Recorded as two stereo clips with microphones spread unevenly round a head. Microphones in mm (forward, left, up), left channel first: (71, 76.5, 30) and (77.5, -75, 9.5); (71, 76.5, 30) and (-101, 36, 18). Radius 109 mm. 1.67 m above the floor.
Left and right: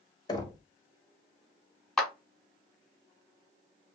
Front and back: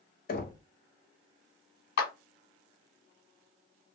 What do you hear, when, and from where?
0.3 s knocking: 35° left, 0.8 m
2.0 s a clap: 10° left, 1.2 m